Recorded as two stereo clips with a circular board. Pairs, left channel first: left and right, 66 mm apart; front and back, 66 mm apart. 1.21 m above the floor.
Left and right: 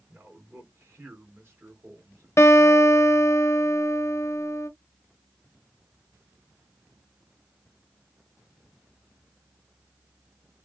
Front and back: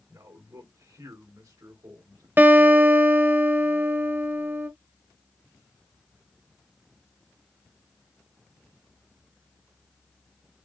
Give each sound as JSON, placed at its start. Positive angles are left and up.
{"t": 0.1, "sound": "a man speaking", "azimuth_deg": -150, "distance_m": 3.0}
{"t": 2.4, "sound": "a guitar", "azimuth_deg": 130, "distance_m": 0.9}